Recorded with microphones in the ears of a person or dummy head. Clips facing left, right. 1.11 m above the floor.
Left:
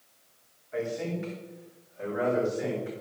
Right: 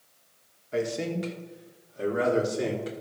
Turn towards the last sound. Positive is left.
turn(degrees=-50)  # may be behind; listen again after turning